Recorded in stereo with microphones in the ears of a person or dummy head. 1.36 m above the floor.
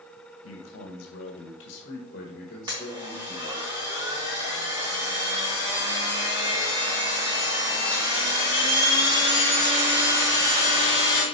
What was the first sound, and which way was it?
A man speaking, 75° left (ahead or behind).